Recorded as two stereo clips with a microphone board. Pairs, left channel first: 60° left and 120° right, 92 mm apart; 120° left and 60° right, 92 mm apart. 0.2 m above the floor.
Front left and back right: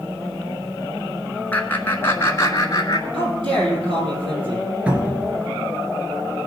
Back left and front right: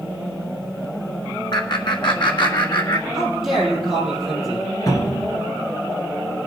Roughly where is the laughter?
Behind left.